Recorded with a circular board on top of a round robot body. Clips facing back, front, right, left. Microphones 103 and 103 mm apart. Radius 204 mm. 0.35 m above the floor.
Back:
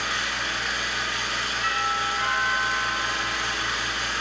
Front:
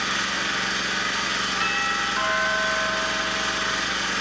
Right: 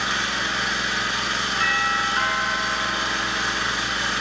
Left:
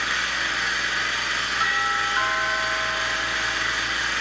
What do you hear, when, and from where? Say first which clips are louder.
0.0 s an engine running: front 2 dB, right 2 dB; 25° right, 8.5 m
1.6 s a doorbell: back 3 dB, right 1 dB; 15° left, 7.5 m